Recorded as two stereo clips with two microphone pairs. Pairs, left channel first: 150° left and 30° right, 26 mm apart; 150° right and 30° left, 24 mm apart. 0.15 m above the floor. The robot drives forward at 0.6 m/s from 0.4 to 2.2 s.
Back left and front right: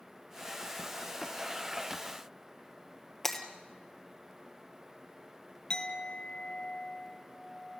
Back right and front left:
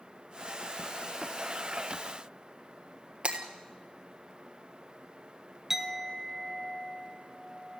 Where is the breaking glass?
70° left, 1.6 m.